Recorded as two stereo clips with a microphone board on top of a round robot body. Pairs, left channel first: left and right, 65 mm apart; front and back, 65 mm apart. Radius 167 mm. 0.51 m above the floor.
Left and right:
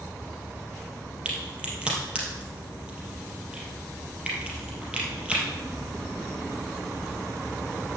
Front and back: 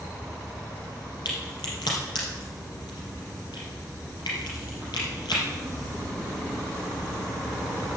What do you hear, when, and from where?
1.2 s a crack: 15° right, 3.5 m